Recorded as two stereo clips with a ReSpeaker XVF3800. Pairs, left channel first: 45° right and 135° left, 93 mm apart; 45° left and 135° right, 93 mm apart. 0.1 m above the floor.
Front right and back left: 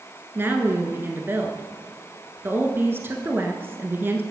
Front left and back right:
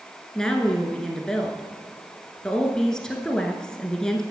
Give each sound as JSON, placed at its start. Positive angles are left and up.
{"t": 0.3, "sound": "a woman speaking", "azimuth_deg": 120, "distance_m": 1.3}